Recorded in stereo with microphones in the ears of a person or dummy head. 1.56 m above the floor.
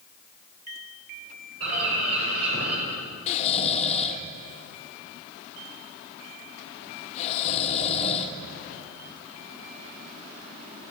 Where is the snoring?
45° left (ahead or behind), 1.5 m.